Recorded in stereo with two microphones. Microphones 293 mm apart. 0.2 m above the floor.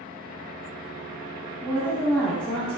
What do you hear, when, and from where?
1.6 s a woman speaking: 5° left (ahead or behind), 1.0 m